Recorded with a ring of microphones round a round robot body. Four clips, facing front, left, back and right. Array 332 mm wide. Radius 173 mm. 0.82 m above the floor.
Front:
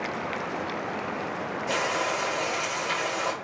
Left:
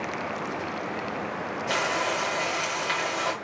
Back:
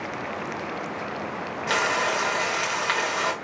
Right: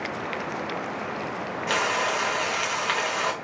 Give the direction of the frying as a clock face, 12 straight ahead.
5 o'clock.